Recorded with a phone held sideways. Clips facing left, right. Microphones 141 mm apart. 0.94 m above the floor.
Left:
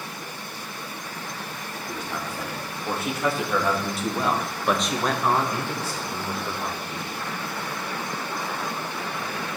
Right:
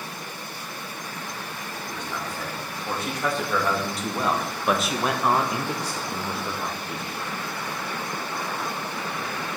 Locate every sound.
1.9 s a man speaking: 10° left (ahead or behind), 2 m; by 7.2 s 15° right (ahead or behind), 1.3 m